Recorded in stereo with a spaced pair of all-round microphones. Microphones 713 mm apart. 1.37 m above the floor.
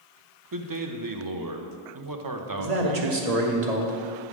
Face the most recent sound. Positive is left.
turn(degrees=-70)  # may be behind; listen again after turning